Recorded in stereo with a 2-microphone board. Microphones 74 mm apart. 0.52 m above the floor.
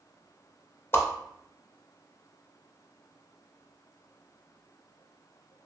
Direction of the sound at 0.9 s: 35° left (ahead or behind).